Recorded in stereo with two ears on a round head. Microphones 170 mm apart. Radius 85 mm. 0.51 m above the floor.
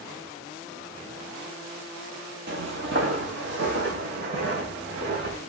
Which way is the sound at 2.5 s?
60° right (ahead or behind).